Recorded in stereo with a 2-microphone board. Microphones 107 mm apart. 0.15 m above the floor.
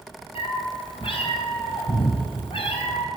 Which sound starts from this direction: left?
A cat meowing, at 0.3 s.